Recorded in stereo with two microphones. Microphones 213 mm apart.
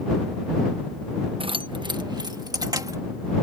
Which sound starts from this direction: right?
Keys jangling, at 1.4 s.